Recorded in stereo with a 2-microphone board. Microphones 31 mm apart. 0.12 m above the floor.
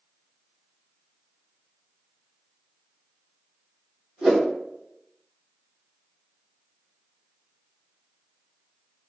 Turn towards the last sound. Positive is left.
turn(degrees=-35)  # may be behind; listen again after turning